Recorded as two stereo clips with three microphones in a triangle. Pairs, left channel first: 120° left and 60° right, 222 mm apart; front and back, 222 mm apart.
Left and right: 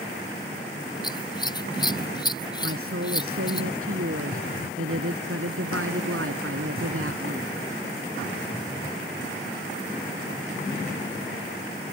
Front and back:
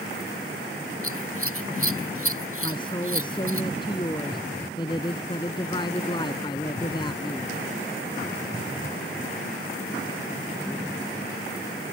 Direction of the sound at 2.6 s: 70° right.